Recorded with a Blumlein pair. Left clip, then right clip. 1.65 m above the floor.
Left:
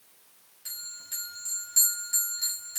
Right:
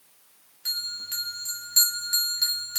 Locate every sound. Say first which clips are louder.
0.7 s a bell: right 10 dB; 65° right, 1.5 m